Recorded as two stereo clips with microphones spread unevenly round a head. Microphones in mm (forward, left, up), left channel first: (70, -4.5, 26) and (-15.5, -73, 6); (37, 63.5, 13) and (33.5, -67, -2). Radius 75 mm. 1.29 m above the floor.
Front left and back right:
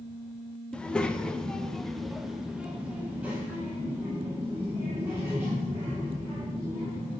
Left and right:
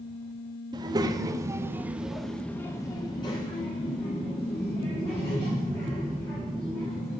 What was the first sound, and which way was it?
A child speaking, 35° right.